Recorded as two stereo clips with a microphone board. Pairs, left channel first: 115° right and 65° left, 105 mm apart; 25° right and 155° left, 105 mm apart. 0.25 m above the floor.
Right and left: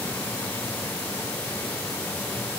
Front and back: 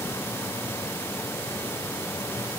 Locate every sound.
Only background noise.